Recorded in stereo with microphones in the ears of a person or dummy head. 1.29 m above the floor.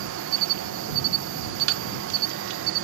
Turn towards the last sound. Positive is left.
turn(degrees=-70)  # may be behind; listen again after turning